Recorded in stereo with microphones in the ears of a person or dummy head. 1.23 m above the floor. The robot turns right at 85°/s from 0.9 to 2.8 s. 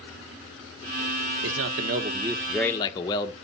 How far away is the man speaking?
About 1.1 m.